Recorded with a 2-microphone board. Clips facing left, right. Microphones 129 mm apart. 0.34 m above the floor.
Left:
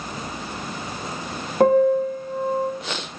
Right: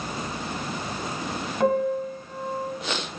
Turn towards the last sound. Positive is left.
turn(degrees=55)  # may be behind; listen again after turning